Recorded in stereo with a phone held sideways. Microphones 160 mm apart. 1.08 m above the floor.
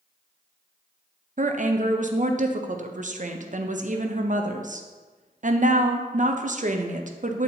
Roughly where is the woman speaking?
Right.